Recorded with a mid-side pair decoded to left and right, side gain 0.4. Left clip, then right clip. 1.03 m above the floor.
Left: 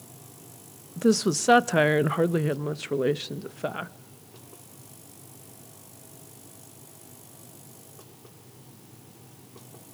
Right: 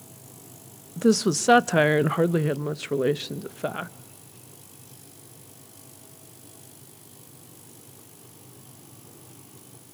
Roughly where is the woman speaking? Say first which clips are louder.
Right 1 dB; ahead.